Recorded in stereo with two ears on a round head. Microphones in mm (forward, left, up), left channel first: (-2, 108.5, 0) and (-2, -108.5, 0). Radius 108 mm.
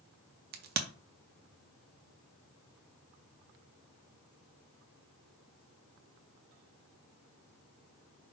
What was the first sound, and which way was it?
A crack, 40° right (ahead or behind).